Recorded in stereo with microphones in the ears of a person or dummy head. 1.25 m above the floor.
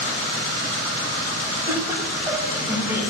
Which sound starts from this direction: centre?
Laughter, at 1.7 s.